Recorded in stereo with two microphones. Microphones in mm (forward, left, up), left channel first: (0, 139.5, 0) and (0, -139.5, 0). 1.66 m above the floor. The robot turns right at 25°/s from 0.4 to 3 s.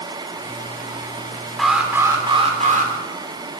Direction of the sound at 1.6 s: Straight behind.